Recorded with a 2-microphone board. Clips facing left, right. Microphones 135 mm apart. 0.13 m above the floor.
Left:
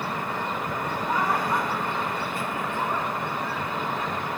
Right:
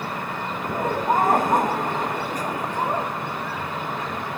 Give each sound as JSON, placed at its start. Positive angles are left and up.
{"t": 0.6, "sound": "laughter", "side_deg": -45}